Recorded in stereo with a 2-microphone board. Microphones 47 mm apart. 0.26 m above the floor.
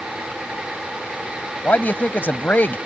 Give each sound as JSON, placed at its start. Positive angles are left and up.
{"t": 1.6, "sound": "a man speaking", "side_deg": 40}